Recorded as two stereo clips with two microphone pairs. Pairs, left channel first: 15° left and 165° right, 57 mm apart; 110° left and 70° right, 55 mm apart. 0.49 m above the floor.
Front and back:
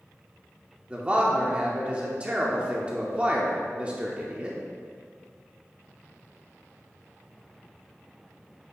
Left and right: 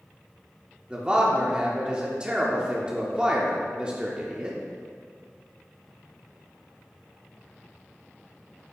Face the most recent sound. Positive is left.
turn(degrees=-120)